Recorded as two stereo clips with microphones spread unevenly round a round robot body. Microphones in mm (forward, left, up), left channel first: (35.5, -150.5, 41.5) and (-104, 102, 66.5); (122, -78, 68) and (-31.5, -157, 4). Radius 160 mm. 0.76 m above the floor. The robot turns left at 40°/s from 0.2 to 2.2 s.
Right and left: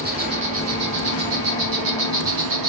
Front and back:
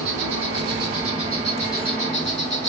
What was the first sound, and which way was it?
An insect, straight behind.